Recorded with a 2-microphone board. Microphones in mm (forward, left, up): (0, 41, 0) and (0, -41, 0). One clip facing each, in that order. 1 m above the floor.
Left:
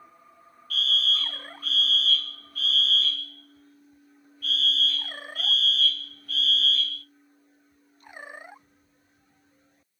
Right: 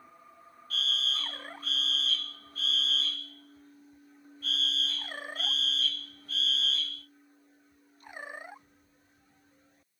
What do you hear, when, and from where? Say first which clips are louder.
0.7 s a fire alarm: left 6 dB; 30° right (ahead or behind), 1.8 m